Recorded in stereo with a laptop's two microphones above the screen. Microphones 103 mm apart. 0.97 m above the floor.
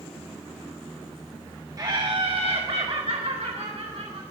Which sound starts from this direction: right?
Laughter, at 1.8 s.